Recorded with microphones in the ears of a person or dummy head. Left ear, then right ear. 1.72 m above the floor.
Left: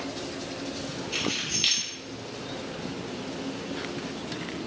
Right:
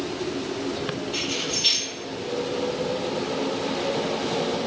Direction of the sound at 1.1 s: 50° left (ahead or behind).